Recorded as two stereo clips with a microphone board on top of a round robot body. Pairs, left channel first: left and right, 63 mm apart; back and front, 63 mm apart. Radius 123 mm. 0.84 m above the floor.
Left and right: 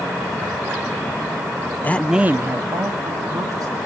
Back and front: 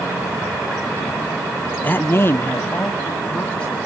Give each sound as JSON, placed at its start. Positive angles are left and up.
{"t": 1.8, "sound": "a man speaking", "azimuth_deg": 130, "distance_m": 0.7}